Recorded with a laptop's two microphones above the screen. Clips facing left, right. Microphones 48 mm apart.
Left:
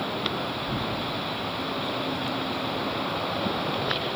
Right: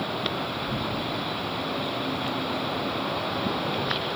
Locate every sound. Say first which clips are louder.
0.7 s tearing paper: even; 80° left, 4.5 m